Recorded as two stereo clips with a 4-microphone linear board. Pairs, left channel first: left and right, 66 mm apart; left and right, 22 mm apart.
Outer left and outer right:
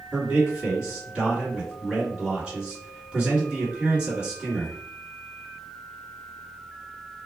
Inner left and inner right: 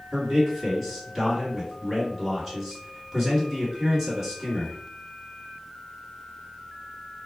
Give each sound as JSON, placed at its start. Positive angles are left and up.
{"t": 0.1, "sound": "a man speaking", "side_deg": -15, "distance_m": 1.8}